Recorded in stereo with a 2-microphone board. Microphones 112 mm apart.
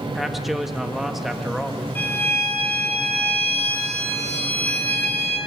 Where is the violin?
15° left (ahead or behind), 2.5 m.